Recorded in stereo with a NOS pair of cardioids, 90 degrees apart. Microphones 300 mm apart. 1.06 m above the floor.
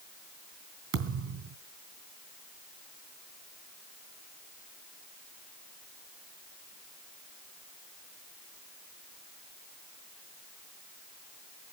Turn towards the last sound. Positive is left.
turn(degrees=-60)